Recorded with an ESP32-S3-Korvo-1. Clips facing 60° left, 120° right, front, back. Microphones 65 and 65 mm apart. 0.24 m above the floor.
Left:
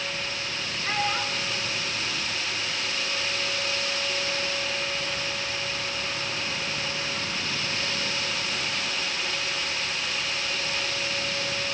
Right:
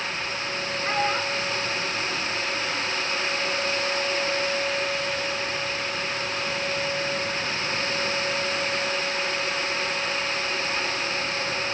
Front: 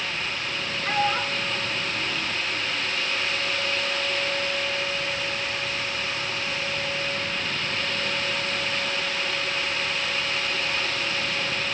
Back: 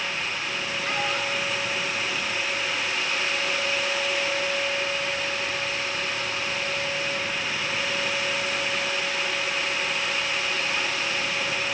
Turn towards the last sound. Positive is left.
turn(degrees=-75)